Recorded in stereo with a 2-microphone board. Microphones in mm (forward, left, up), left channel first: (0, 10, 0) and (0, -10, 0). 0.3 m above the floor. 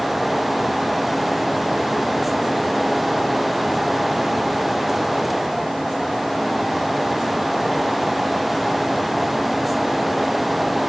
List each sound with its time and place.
Only background noise.